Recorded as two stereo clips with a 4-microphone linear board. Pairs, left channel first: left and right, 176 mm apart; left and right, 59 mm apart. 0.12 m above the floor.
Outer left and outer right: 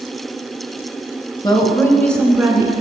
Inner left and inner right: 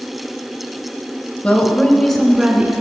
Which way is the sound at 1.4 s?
25° left (ahead or behind).